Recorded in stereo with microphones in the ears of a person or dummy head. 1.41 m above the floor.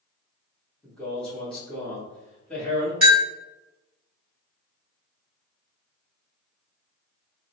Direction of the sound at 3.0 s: 10° right (ahead or behind).